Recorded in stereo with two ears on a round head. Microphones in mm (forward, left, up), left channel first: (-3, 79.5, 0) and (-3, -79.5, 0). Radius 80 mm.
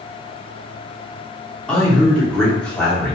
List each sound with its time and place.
1.7 s a man speaking: 5° left (ahead or behind), 0.9 m